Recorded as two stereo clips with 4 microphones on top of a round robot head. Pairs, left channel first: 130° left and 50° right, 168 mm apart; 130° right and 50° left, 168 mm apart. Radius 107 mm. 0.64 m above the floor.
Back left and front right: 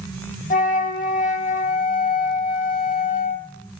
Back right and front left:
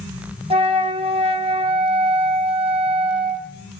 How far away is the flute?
About 1.6 m.